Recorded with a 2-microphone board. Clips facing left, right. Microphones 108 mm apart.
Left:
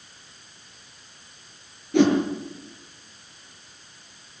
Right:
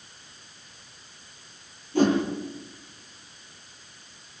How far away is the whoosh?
About 6 m.